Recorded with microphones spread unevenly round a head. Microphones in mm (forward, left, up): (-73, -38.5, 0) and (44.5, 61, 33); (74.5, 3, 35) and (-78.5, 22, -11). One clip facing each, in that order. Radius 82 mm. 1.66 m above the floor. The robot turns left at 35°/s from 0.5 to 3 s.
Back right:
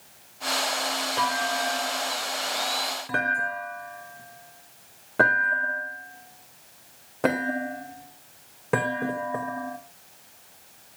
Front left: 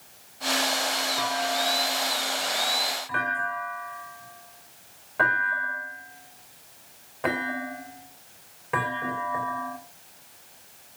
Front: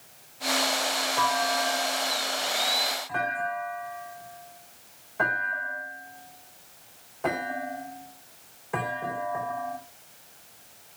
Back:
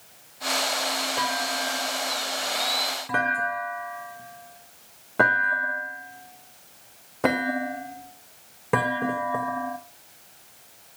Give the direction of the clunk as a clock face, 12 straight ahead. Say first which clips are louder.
Back right 1 dB, front 6 dB; 4 o'clock.